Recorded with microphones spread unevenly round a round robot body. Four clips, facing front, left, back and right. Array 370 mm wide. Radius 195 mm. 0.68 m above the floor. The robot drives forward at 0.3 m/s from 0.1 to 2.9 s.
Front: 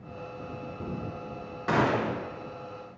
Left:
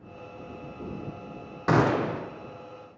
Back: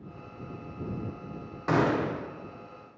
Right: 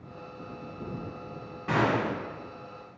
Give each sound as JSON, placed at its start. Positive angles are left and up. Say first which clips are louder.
{"t": 1.7, "sound": "a gunshot", "louder": "left 3 dB, even", "azimuth_deg": 70, "distance_m": 0.5}